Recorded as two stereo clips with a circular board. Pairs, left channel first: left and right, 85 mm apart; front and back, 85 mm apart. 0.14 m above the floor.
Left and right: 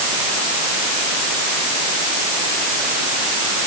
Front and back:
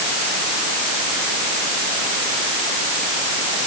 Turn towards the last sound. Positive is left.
No sound to turn to.